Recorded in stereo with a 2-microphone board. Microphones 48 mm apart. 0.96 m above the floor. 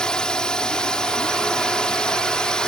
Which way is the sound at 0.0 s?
15° left (ahead or behind).